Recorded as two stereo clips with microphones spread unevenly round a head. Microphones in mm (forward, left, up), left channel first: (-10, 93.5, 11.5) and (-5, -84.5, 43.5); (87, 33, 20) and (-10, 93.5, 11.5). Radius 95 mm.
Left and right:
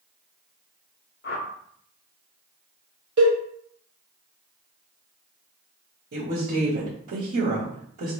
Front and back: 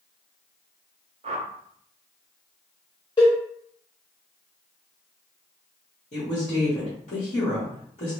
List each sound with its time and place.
1.2 s a whoosh: 130° left, 0.5 m
3.2 s a cowbell: 100° right, 1.0 m
6.1 s a woman speaking: 75° right, 1.5 m